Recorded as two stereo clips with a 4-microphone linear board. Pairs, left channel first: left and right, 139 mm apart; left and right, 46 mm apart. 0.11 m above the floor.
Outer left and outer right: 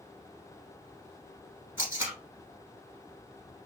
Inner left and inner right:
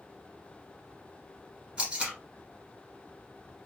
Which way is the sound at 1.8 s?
15° right (ahead or behind).